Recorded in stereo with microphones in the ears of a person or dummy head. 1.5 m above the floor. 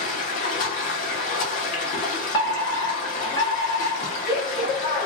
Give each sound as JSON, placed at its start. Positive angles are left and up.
{"t": 0.0, "sound": "running water", "side_deg": 40, "distance_m": 0.9}
{"t": 2.3, "sound": "a fire alarm", "side_deg": 20, "distance_m": 0.6}